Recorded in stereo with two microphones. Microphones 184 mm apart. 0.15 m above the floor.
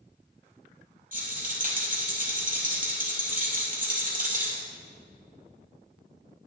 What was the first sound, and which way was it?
A rattle, 50° right (ahead or behind).